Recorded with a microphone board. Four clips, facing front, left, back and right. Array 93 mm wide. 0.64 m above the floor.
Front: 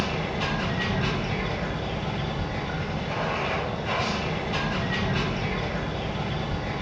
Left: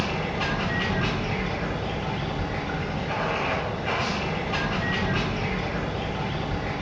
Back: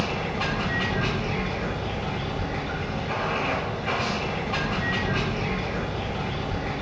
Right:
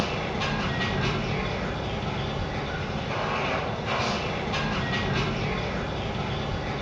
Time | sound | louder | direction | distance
0.0 | running water | left 1 dB, back 1 dB | 115° left | 1.0 m